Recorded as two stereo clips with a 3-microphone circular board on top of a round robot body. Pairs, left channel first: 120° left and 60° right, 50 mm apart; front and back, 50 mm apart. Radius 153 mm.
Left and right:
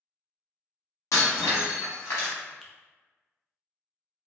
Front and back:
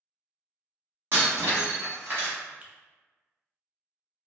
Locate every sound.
1.1 s breaking glass: 135° left, 0.9 m
2.6 s a finger snap: 170° right, 0.7 m